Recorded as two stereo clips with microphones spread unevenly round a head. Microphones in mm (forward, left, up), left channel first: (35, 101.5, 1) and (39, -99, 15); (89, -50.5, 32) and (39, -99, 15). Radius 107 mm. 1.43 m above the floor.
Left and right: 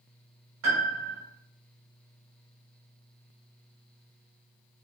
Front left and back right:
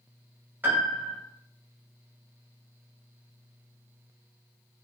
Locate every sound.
0.6 s a piano: 70° right, 1.0 m